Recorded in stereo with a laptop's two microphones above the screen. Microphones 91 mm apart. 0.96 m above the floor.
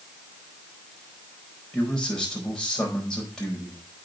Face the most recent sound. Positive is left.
turn(degrees=10)  # may be behind; listen again after turning